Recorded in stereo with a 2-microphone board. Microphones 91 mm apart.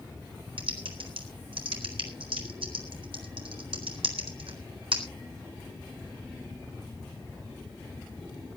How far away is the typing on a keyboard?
About 4 m.